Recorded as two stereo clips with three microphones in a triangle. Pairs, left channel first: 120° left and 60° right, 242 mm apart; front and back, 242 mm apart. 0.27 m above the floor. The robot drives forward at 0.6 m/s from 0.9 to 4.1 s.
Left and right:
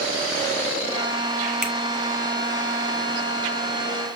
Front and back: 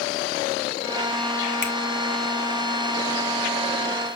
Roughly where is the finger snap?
Ahead left.